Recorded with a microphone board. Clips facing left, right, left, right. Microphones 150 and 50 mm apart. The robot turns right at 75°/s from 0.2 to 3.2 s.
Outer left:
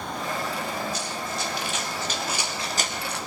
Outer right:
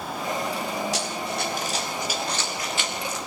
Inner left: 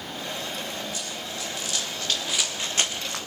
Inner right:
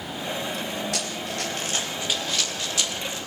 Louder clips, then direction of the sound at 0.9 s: Outer right 3 dB, inner right 4 dB; 85° right.